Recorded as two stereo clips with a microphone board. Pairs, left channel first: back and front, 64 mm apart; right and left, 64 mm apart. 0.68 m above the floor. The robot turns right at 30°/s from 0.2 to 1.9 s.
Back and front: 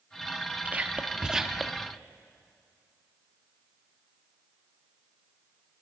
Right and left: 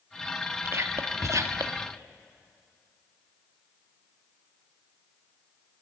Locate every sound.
0.7 s whispering: 60° left, 0.8 m; by 1.9 s 95° left, 0.8 m